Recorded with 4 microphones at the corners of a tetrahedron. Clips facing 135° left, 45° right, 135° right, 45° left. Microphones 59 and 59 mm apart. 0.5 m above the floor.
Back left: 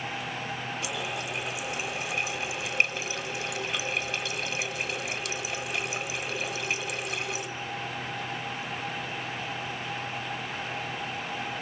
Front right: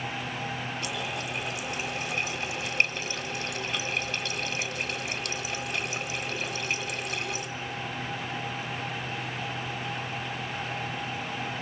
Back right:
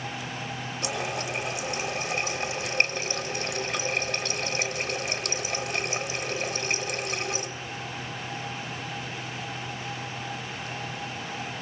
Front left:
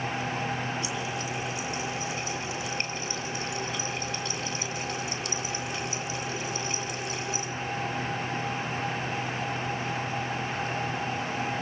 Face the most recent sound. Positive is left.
turn(degrees=-140)